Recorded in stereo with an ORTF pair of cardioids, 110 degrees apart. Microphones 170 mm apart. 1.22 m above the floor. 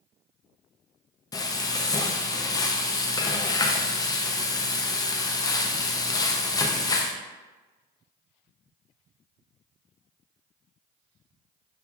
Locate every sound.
1.3 s frying: 20° left, 0.6 m